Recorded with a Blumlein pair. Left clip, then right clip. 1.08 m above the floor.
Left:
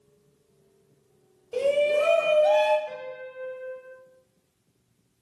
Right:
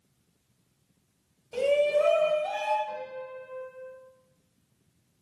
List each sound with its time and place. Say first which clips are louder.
1.5 s a shout: left 1 dB; 5° left, 1.0 m; by 2.8 s 70° left, 0.9 m
2.9 s a piano: even; 60° left, 1.1 m